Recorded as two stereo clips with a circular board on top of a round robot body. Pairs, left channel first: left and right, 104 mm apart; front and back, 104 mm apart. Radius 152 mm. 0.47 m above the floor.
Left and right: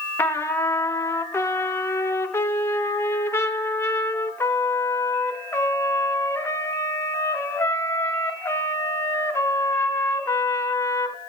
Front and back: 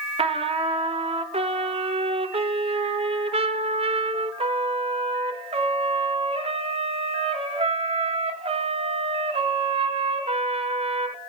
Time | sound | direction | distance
0.2 | a trumpet | 155° left | 0.6 m